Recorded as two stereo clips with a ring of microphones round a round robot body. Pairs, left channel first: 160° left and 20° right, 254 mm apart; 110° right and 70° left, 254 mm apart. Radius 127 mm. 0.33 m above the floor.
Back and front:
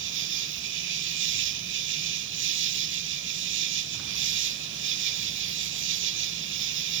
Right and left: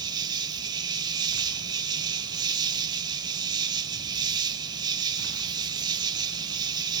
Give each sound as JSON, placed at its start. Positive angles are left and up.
{"t": 0.0, "sound": "an insect", "azimuth_deg": 0, "distance_m": 1.0}